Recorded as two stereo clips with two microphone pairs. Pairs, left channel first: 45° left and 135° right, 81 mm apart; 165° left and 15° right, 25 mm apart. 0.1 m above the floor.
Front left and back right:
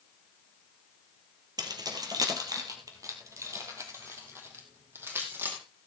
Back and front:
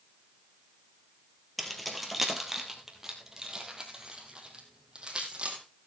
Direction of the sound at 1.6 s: 110° right.